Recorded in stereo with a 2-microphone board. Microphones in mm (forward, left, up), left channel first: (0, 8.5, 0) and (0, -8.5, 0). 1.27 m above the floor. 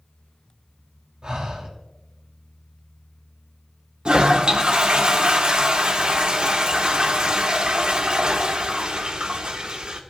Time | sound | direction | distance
1.2 | breathing | 50° right (ahead or behind) | 3 m
4.0 | a toilet flushing | 65° right (ahead or behind) | 1.5 m